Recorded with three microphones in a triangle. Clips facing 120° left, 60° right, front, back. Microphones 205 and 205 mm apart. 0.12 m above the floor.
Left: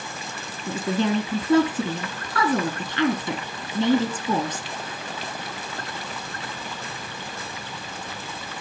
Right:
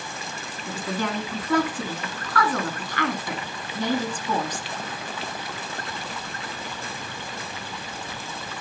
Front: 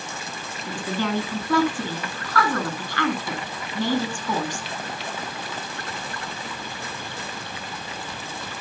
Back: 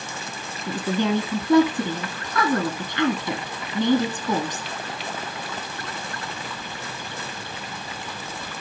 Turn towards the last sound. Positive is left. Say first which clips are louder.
# left 6 dB, back 4 dB
turn(degrees=140)